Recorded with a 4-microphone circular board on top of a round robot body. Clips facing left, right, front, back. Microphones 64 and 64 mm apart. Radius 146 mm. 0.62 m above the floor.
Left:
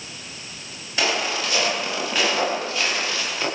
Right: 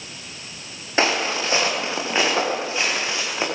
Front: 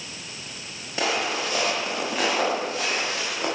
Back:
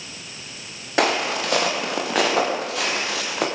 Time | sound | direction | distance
1.0 | footsteps | 150° right | 8 m